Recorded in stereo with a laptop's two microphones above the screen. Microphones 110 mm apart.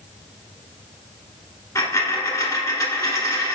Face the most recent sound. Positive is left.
turn(degrees=35)  # may be behind; listen again after turning